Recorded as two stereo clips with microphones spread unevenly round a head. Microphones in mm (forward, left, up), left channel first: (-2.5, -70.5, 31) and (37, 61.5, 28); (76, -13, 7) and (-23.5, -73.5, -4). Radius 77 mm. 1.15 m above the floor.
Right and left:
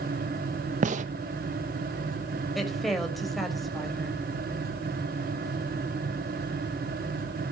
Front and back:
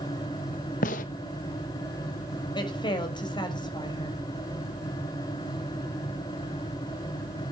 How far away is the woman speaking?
About 6 m.